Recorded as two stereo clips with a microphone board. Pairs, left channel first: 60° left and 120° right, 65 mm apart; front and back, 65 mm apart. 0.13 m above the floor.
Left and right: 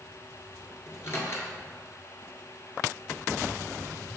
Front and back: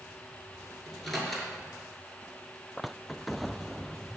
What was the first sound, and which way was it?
A microwave, 85° left.